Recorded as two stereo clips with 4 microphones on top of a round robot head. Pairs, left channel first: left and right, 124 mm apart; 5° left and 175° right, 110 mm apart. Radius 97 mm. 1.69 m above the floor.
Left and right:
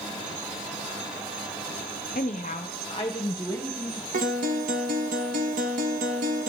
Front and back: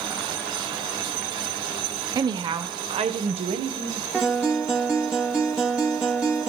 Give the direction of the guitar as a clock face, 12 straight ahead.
3 o'clock.